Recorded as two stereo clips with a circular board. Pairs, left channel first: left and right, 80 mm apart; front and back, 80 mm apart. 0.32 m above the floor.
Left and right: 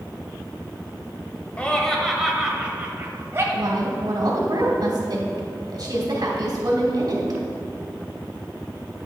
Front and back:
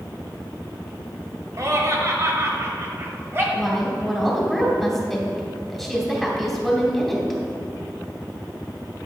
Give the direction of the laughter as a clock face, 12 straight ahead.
7 o'clock.